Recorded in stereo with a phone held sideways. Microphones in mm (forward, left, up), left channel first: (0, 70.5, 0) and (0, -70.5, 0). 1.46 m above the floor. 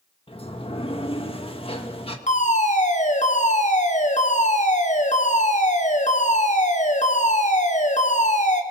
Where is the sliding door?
40° left (ahead or behind), 1.9 m.